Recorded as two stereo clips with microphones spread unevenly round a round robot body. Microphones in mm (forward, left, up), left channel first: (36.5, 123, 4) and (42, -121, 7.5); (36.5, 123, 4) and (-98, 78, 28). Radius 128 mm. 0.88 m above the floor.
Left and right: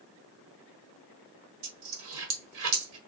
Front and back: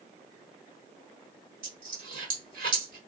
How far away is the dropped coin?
About 1.2 m.